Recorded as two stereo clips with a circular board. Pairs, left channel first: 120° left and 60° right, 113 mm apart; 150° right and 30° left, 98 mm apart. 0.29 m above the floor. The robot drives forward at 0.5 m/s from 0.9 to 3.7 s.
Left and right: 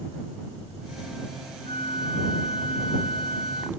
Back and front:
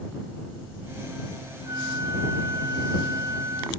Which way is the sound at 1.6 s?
80° left.